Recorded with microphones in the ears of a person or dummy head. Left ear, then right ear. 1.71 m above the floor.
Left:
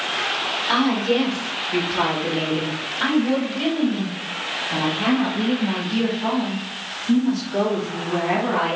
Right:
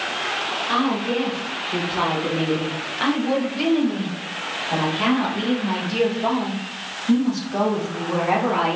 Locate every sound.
0.7 s a woman speaking: 15° left (ahead or behind), 2.5 m; by 8.8 s 70° right (ahead or behind), 5 m